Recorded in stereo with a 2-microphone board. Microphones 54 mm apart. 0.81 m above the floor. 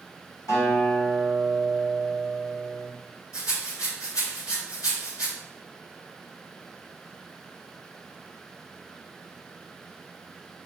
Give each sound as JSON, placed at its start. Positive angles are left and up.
{"t": 0.5, "sound": "a guitar", "side_deg": 80, "distance_m": 1.5}
{"t": 3.3, "sound": "a rattle", "side_deg": 85, "distance_m": 1.6}